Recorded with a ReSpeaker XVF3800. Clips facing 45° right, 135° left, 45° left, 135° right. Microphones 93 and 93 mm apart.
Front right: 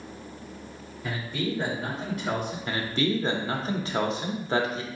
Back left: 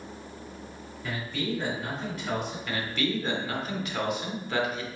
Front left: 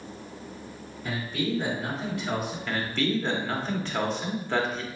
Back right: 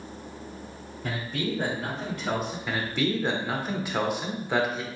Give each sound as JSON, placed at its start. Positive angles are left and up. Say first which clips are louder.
{"t": 1.0, "sound": "a man speaking", "louder": "front right 2 dB, front left 1 dB", "azimuth_deg": -120, "distance_m": 2.5}
{"t": 2.7, "sound": "a man speaking", "louder": "front right 4 dB, even", "azimuth_deg": -65, "distance_m": 0.8}